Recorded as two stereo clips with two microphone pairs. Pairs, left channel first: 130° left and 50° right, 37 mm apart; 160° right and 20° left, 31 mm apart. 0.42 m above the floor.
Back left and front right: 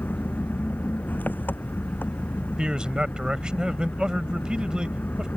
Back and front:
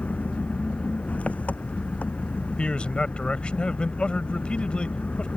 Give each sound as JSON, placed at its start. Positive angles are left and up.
{"t": 0.0, "sound": "an engine running", "azimuth_deg": 160}
{"t": 2.6, "sound": "a man speaking", "azimuth_deg": -110}